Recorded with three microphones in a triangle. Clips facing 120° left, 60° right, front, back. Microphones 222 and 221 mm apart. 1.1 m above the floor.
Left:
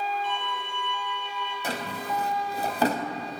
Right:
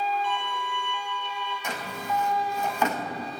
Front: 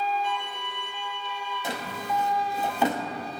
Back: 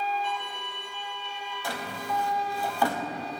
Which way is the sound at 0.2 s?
80° left.